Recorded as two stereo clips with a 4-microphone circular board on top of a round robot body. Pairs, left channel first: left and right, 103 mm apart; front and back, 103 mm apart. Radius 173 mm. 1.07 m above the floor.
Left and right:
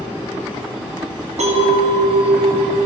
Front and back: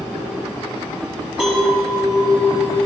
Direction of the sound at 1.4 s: 100° right.